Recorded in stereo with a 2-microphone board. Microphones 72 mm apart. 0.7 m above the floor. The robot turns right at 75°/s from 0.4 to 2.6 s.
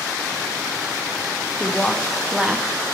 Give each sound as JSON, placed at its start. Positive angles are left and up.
{"t": 1.6, "sound": "a woman speaking", "side_deg": 15, "distance_m": 0.6}